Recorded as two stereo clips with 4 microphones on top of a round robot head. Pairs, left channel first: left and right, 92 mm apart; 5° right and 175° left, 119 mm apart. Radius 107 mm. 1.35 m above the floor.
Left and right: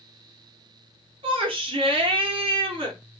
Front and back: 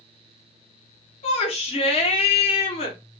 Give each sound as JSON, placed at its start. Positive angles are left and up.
{"t": 1.2, "sound": "a shout", "azimuth_deg": -50, "distance_m": 0.8}